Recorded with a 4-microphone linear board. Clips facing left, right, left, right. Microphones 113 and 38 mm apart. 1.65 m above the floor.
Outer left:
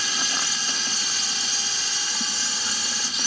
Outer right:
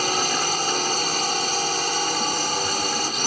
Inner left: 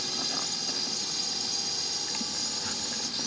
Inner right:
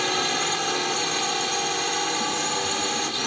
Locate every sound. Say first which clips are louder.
0.0 s a drone: outer right 8 dB, inner right 11 dB; 50° right (ahead or behind)